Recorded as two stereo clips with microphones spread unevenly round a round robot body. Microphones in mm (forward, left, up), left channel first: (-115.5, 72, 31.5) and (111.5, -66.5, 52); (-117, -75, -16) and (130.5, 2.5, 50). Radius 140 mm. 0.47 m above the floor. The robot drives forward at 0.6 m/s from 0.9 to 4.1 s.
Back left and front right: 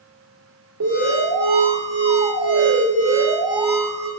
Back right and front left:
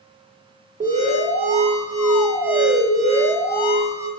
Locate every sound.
0.8 s an alarm: 50° right, 2.5 m; by 4.1 s 115° right, 2 m